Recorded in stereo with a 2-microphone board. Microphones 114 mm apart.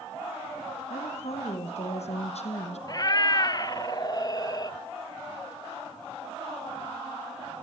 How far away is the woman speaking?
About 5.5 m.